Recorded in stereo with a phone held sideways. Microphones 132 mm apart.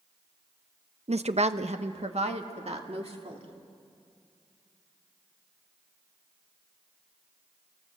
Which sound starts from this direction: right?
A woman speaking, at 1.1 s.